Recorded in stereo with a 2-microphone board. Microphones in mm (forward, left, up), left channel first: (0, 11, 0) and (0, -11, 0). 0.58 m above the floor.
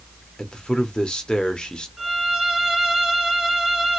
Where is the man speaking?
40° left (ahead or behind), 0.9 m.